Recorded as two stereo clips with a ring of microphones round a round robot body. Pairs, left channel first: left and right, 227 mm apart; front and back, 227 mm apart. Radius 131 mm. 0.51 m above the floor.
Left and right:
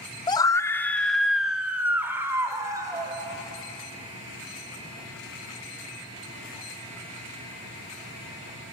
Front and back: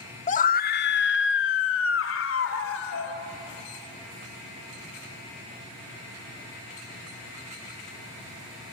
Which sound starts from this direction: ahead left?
A scream, at 0.3 s.